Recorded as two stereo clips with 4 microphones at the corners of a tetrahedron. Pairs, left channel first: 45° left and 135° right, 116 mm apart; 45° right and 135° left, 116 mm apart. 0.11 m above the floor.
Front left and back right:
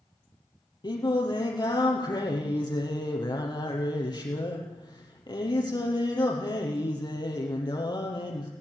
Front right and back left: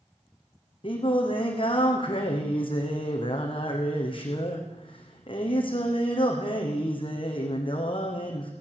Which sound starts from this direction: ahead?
Singing, at 0.8 s.